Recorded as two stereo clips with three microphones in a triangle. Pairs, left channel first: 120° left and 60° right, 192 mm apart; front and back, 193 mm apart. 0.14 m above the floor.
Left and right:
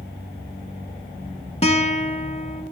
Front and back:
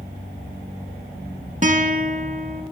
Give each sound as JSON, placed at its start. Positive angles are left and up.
{"t": 1.6, "sound": "a guitar", "azimuth_deg": 160, "distance_m": 0.5}